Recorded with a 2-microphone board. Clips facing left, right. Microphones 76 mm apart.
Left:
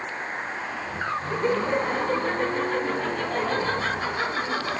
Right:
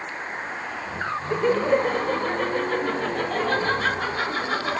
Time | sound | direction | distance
1.3 | laughter | 65° right (ahead or behind) | 8.5 m